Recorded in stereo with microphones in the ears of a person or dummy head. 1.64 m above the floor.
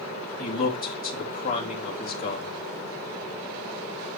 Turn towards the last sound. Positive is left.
turn(degrees=40)  # may be behind; listen again after turning